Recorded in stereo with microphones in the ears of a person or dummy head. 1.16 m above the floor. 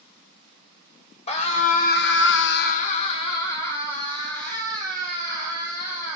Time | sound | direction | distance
1.3 | a scream | 35° left (ahead or behind) | 1.7 m